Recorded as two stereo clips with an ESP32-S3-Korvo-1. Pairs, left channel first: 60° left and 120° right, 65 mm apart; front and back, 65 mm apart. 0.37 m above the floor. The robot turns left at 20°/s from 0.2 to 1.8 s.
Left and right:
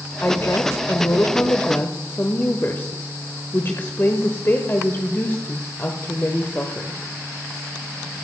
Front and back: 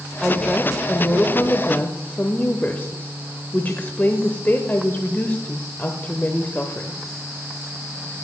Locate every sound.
0.2 s a woman speaking: 75° left, 1.0 m; by 7.0 s 45° left, 1.0 m